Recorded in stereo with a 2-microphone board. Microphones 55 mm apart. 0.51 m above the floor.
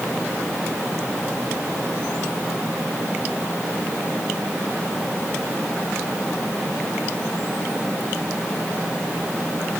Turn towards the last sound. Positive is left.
No sound to turn to.